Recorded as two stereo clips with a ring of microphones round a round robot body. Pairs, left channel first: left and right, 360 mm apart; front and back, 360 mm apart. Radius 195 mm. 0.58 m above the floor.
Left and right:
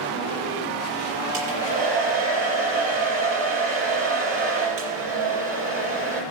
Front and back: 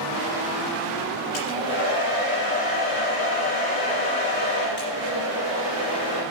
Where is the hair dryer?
60° right, 5.5 m.